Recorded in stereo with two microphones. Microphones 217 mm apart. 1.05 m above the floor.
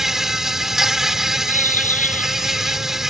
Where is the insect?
Centre (ahead or behind).